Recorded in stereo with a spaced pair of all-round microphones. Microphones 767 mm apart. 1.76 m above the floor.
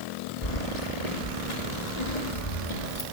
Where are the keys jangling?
55° left (ahead or behind), 3 m.